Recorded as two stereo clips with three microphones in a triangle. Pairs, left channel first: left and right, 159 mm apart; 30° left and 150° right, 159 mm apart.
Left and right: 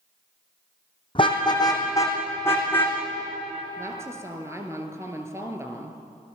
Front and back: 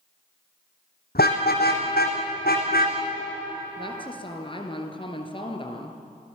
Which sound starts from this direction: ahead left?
A car horn, at 1.1 s.